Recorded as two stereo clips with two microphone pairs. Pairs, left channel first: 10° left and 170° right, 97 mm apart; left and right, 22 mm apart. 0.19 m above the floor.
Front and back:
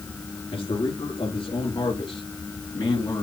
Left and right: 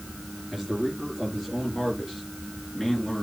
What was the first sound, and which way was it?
A man speaking, 10° left.